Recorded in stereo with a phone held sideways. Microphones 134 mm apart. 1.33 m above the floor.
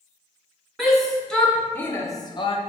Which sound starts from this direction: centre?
A shout, at 0.8 s.